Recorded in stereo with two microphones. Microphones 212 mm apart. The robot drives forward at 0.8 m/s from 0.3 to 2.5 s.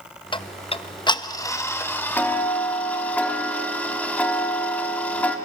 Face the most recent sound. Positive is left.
turn(degrees=10)  # may be behind; listen again after turning